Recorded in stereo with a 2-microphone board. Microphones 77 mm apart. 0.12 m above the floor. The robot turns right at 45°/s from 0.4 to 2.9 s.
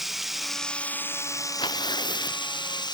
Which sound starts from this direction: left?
Tearing paper, at 1.6 s.